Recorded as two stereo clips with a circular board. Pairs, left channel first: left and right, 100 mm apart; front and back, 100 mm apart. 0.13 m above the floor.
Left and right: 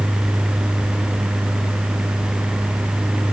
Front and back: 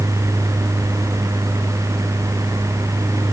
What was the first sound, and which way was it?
Only background noise.